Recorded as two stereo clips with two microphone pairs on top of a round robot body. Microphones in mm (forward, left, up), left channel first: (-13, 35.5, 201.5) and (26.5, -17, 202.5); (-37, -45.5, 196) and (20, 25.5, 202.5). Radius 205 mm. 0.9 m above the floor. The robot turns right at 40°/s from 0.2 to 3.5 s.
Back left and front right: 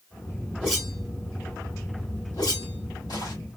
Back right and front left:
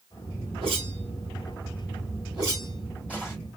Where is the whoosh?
30° left, 3 m; by 3.4 s 140° left, 3 m.